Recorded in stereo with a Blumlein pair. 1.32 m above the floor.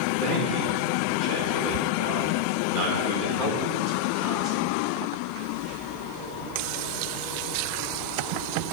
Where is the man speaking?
50° right, 2.5 m.